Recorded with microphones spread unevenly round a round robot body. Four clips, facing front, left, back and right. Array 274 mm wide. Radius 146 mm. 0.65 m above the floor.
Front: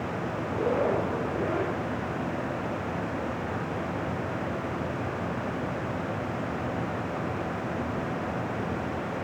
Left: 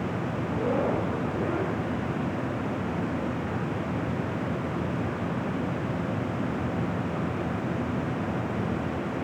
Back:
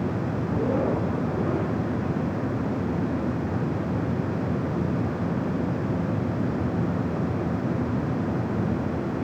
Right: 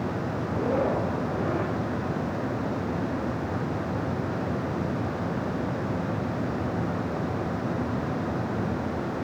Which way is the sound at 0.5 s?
170° left.